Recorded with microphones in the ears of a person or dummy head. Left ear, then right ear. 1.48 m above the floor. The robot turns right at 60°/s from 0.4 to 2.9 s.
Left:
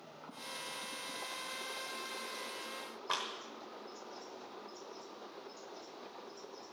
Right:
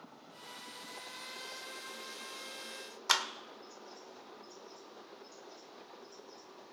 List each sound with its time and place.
3.1 s a clap: 75° right (ahead or behind), 1.1 m